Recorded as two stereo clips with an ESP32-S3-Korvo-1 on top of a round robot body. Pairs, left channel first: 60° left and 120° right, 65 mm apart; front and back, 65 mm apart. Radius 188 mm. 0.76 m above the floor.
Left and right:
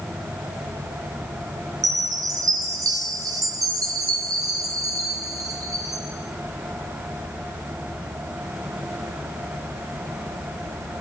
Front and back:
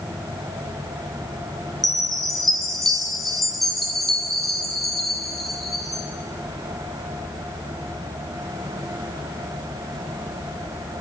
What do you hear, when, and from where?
1.8 s a chime: 90° right, 1.9 m